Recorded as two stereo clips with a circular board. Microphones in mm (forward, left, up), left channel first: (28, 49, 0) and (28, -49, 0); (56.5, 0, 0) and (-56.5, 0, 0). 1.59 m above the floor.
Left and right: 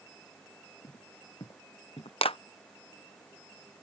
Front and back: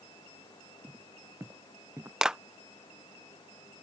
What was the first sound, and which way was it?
Footsteps, 115° left.